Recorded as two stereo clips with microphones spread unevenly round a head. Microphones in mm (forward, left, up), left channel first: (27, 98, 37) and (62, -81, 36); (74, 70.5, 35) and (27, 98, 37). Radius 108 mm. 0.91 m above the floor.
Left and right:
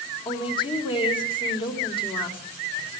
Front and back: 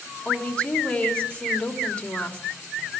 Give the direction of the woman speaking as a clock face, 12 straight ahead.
11 o'clock.